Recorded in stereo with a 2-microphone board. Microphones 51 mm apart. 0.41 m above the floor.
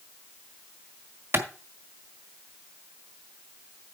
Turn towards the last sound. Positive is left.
turn(degrees=-50)  # may be behind; listen again after turning